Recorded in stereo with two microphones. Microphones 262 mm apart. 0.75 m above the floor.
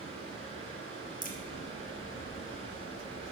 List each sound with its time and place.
0.0 s running water: 25° left (ahead or behind), 2.5 m
1.2 s a crack: 35° left (ahead or behind), 1.1 m